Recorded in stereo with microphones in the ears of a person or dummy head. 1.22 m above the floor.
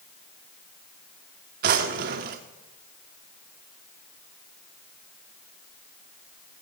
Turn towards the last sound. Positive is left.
turn(degrees=-50)  # may be behind; listen again after turning